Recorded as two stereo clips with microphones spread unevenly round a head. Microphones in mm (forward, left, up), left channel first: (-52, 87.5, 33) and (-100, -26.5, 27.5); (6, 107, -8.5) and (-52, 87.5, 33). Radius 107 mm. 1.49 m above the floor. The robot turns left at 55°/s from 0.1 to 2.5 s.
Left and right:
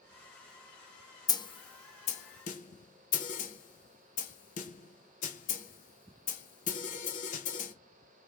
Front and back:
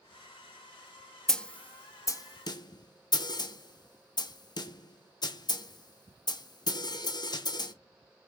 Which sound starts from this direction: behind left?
A snare drum, at 1.3 s.